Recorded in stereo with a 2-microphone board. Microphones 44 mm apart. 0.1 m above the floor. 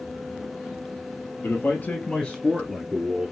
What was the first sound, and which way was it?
A man speaking, 50° left (ahead or behind).